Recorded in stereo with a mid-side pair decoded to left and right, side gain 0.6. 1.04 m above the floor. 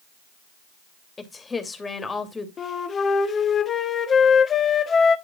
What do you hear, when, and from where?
1.2 s a woman speaking: 20° left, 2.5 m
2.6 s a flute: 35° left, 1.4 m